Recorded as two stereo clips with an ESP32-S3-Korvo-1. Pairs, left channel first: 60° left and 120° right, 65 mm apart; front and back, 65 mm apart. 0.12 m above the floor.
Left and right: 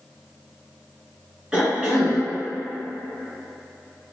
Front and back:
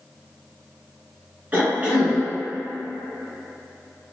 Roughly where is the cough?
Behind.